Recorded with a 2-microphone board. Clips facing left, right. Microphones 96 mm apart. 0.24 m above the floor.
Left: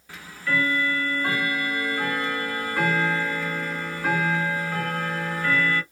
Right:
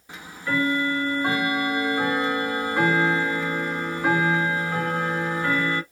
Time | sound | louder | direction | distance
0.1 | ticking | even | 20° right (ahead or behind) | 0.7 m